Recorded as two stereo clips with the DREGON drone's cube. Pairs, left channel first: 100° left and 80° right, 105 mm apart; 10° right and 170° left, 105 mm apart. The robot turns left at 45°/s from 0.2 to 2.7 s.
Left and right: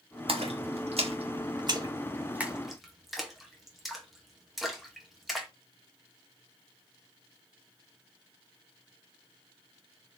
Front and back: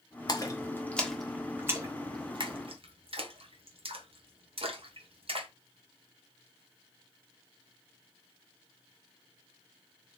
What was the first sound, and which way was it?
A splash, 60° right.